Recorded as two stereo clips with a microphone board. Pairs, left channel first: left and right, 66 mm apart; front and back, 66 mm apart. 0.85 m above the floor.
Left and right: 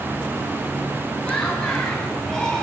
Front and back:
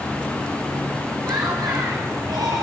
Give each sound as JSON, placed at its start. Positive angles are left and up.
{"t": 1.2, "sound": "laughter", "azimuth_deg": 165, "distance_m": 4.5}